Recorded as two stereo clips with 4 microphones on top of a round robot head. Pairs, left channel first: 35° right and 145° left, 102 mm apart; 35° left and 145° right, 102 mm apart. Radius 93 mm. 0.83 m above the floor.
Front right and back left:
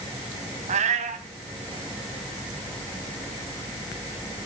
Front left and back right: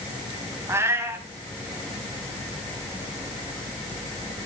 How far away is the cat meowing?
About 3 m.